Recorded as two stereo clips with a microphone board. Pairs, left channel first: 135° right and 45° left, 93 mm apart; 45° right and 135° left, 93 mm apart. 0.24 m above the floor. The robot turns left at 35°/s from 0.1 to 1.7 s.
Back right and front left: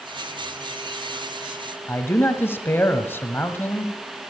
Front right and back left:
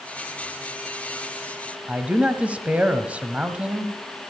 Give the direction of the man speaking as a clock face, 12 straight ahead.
6 o'clock.